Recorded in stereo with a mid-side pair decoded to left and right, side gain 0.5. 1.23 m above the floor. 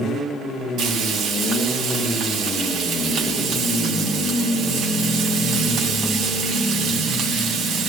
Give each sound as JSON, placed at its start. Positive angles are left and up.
{"t": 0.8, "sound": "frying", "azimuth_deg": -65, "distance_m": 4.5}